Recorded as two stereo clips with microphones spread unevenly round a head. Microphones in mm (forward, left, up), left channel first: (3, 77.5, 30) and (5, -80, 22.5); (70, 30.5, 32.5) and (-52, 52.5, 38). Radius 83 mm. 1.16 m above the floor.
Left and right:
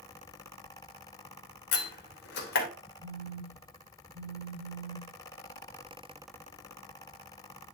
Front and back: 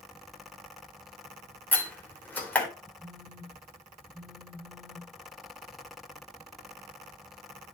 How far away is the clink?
No clink in this recording.